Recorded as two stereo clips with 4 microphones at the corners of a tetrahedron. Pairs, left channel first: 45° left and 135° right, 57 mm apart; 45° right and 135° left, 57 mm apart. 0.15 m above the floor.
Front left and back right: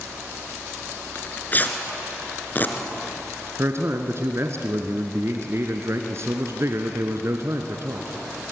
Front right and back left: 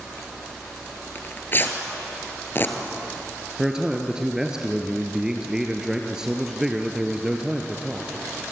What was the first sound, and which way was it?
Tearing paper, 5° right.